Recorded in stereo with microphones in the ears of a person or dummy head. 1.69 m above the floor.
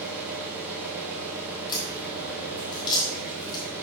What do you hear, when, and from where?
0.0 s an engine running: 5° right (ahead or behind), 3 m
1.7 s a crack: 30° left (ahead or behind), 3.5 m